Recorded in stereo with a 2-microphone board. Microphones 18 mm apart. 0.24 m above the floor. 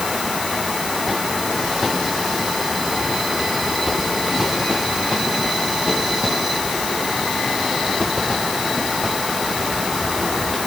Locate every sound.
Only background noise.